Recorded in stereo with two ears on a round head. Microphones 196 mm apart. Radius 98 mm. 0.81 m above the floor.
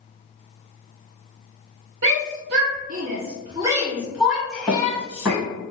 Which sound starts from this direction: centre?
Running footsteps, at 4.7 s.